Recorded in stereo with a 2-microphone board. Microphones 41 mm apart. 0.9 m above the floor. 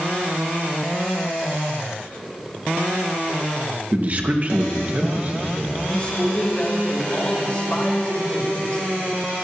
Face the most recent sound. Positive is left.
turn(degrees=30)  # may be behind; listen again after turning